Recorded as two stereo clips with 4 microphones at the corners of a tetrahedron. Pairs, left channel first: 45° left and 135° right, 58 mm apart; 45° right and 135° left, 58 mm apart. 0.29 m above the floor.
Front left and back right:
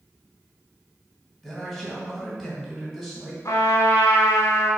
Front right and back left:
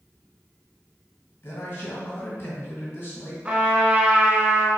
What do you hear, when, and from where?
1.4 s a man speaking: 45° right, 1.9 m
3.5 s a trumpet: 70° left, 1.1 m